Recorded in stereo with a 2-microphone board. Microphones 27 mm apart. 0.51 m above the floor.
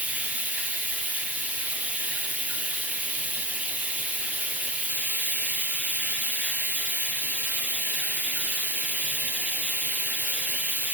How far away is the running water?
About 3.5 m.